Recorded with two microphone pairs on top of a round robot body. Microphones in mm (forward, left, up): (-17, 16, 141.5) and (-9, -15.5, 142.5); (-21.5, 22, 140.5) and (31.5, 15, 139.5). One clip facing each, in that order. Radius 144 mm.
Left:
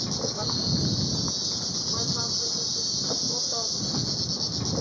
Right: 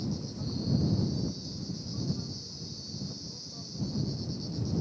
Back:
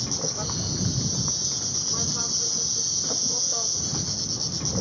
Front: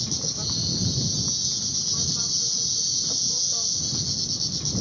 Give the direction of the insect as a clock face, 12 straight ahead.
8 o'clock.